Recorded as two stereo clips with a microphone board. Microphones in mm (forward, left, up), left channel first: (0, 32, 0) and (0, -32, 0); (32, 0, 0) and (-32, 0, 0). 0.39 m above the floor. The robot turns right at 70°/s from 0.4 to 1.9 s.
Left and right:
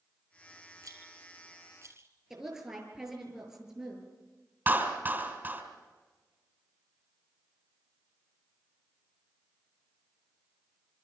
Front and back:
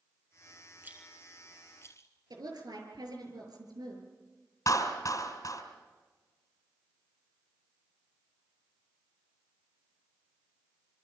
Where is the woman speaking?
175° right, 6 m.